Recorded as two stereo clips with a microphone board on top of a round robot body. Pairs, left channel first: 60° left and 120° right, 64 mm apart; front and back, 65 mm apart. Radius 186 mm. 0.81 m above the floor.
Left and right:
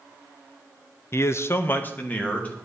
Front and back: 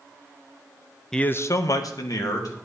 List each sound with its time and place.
1.1 s a man speaking: 80° left, 0.7 m; by 2.5 s 5° right, 2 m